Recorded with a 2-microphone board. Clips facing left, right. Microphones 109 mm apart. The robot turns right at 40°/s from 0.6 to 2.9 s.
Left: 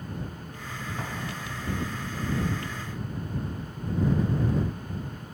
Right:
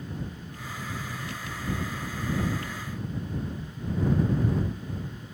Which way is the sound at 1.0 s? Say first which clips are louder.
Left 2 dB; 85° left.